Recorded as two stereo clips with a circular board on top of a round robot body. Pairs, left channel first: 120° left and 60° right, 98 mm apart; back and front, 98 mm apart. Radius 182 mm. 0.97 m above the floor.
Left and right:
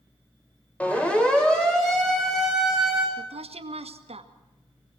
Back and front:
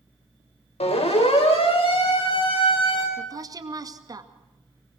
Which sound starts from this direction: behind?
A siren, at 0.8 s.